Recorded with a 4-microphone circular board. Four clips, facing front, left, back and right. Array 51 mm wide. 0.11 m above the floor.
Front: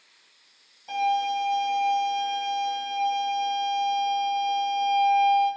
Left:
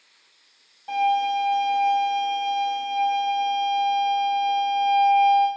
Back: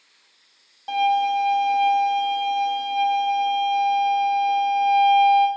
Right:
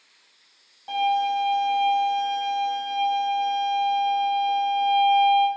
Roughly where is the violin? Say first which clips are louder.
Left 1 dB, back 5 dB; behind.